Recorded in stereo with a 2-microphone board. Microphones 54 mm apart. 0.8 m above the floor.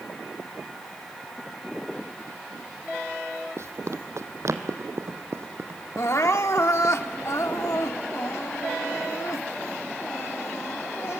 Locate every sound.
3.6 s running footsteps: 60° right (ahead or behind), 1.5 m; by 7.0 s 40° right (ahead or behind), 2.5 m
6.0 s crying: 60° left (ahead or behind), 1.1 m